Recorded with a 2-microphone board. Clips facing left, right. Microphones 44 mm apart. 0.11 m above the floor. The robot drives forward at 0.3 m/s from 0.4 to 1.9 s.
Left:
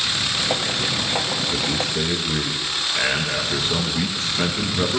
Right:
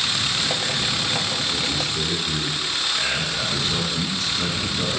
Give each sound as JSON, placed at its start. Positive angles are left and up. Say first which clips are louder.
{"t": 1.5, "sound": "a man speaking", "louder": "left 2 dB", "side_deg": 30, "distance_m": 1.7}